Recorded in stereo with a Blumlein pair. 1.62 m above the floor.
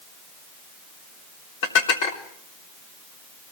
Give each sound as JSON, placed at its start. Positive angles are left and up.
{"t": 1.6, "sound": "dishes clattering", "azimuth_deg": 50, "distance_m": 3.5}